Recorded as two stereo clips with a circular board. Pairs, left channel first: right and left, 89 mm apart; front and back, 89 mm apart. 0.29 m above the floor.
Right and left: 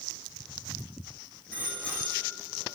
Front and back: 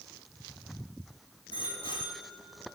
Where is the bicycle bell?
15° right, 9.5 m; by 2.8 s 25° right, 9 m.